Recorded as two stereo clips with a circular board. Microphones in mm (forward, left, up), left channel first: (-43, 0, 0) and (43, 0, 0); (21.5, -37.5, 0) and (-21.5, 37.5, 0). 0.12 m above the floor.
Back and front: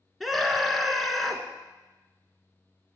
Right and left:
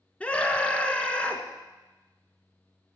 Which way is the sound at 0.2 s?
90° right.